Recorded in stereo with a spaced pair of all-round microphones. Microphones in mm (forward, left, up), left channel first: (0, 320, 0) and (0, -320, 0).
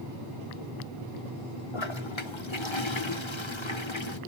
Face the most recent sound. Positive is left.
turn(degrees=45)  # may be behind; listen again after turning